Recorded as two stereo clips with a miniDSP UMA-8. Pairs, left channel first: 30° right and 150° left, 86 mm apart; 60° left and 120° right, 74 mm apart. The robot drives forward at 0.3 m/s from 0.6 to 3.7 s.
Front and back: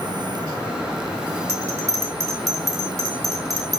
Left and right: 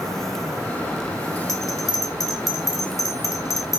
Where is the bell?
95° left, 4 m; by 3.8 s 105° left, 4 m.